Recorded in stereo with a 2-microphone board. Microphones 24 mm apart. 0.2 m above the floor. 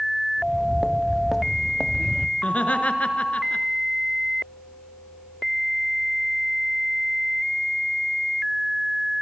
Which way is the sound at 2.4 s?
65° left (ahead or behind).